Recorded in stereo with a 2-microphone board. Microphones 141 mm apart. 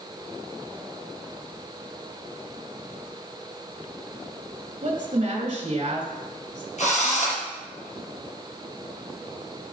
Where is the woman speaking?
40° right (ahead or behind), 2 m.